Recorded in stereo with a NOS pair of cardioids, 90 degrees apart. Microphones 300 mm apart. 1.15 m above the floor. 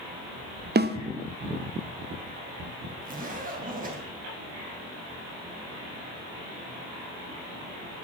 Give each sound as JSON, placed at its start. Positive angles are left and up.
{"t": 0.8, "sound": "a snare drum", "azimuth_deg": -35, "distance_m": 0.9}
{"t": 3.0, "sound": "a zipper", "azimuth_deg": -30, "distance_m": 3.0}